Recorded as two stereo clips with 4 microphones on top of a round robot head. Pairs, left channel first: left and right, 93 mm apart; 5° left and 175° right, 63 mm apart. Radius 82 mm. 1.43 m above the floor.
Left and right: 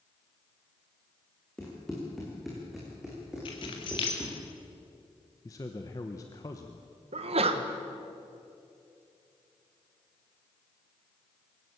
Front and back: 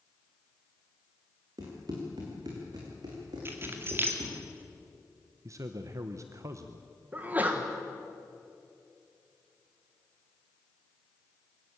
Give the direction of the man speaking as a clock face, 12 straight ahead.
7 o'clock.